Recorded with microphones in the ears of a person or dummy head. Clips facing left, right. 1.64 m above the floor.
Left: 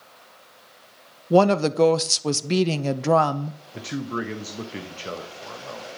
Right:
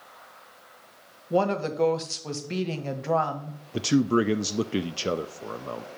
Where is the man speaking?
45° right (ahead or behind), 0.5 m.